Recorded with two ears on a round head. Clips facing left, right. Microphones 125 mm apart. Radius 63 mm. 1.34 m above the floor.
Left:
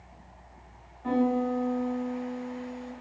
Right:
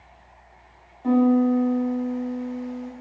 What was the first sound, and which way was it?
A piano, 40° right (ahead or behind).